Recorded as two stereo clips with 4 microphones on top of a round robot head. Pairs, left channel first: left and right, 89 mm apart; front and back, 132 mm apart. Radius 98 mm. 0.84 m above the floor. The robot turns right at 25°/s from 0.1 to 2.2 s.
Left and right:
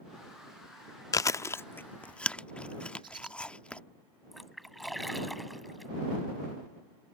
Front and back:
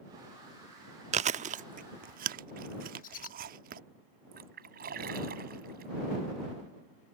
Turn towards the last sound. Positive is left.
turn(degrees=180)